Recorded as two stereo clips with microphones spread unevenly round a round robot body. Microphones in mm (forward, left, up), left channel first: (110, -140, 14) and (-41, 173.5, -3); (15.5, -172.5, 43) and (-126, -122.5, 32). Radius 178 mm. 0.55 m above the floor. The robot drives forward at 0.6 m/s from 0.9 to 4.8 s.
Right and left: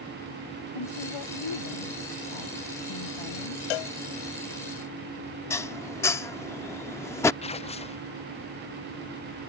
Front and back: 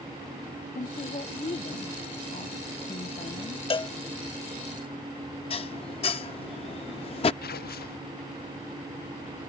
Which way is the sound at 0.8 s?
55° right.